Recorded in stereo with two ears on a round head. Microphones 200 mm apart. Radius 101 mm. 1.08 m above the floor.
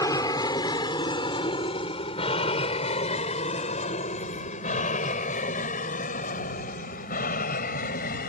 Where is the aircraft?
15° left (ahead or behind); by 8.3 s 40° left (ahead or behind).